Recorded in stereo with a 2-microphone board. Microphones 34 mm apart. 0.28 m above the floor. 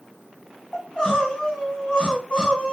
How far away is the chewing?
I don't hear chewing.